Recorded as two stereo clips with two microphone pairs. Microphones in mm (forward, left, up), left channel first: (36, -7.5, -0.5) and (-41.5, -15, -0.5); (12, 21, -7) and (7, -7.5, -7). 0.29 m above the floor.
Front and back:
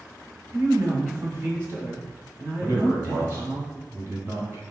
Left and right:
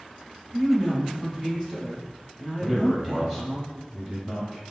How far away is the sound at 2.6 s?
About 1.3 m.